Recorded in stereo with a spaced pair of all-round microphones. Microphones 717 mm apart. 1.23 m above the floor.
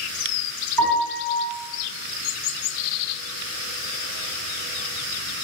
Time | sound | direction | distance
0.8 | a piano | 30° right (ahead or behind) | 1.8 m